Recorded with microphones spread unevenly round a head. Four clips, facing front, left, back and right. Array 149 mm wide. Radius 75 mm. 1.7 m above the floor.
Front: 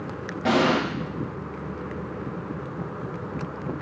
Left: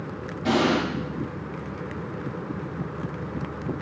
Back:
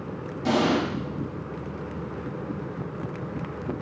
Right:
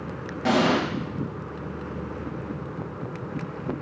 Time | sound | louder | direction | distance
0.5 | an explosion | right 1 dB, front 2 dB | 30° right | 1.3 m